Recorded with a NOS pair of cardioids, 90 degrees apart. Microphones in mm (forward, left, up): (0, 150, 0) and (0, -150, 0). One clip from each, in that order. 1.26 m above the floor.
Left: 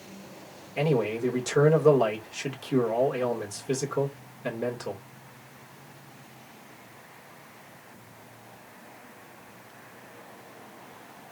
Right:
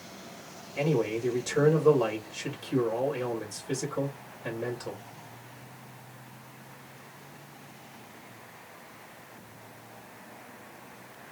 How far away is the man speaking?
About 2.5 m.